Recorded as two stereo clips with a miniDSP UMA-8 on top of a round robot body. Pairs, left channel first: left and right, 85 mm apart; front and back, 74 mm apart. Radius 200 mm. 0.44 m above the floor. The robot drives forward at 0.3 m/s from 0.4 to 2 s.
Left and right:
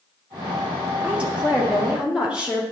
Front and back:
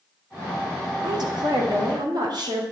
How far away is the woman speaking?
About 1.6 m.